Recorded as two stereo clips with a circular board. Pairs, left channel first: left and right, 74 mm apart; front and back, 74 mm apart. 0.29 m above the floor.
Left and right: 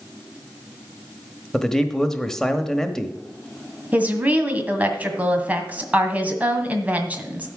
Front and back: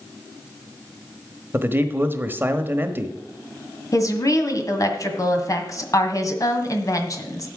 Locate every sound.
1.5 s a man speaking: 165° left, 1.1 m
3.9 s a woman speaking: 25° right, 1.9 m